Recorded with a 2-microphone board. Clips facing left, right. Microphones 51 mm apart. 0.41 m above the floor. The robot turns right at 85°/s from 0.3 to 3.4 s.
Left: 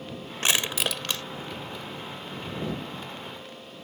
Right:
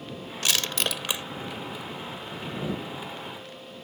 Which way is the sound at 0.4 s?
30° left (ahead or behind).